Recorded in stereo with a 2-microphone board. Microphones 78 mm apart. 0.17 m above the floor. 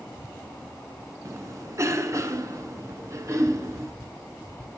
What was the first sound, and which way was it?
A cough, 40° right (ahead or behind).